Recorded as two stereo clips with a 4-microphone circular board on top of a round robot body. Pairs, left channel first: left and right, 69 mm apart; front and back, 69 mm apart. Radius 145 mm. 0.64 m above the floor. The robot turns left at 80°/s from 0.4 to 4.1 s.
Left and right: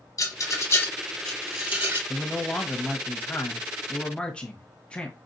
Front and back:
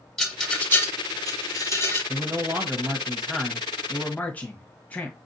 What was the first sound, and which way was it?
A rattle, 85° left.